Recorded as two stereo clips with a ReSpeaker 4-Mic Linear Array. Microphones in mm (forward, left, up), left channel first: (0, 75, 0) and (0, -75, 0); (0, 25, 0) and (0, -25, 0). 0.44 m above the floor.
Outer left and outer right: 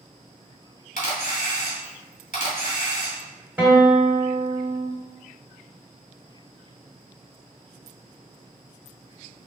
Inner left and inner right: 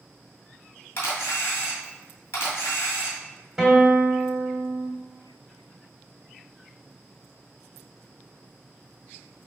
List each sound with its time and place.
1.0 s a camera shutter: 60° left (ahead or behind), 2.0 m
3.6 s a guitar: 10° right (ahead or behind), 1.2 m